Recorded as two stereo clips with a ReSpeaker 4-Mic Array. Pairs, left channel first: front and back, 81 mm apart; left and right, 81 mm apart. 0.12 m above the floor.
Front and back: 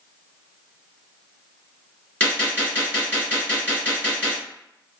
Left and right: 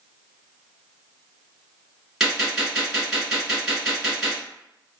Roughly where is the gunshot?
Ahead.